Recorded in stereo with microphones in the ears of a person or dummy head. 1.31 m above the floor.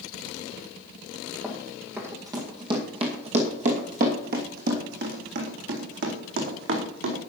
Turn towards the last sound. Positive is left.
turn(degrees=-70)  # may be behind; listen again after turning